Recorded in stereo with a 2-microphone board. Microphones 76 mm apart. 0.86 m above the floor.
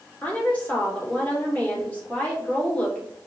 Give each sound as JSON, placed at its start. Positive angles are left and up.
{"t": 0.2, "sound": "a woman speaking", "side_deg": 20, "distance_m": 2.0}